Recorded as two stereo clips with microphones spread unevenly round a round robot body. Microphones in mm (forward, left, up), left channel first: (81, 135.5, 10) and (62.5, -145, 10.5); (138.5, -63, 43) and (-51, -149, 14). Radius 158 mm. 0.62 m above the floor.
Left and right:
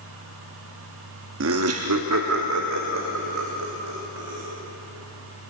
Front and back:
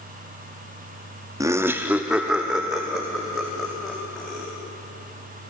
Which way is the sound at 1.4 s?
100° right.